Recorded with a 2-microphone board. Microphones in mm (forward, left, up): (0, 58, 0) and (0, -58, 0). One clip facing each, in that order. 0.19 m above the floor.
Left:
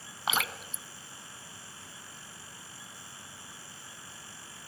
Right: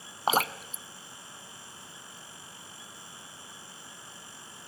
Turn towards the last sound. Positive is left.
turn(degrees=-40)  # may be behind; listen again after turning